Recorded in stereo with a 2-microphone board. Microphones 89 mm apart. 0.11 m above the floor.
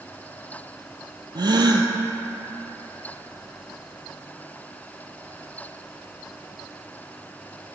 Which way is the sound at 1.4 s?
60° right (ahead or behind).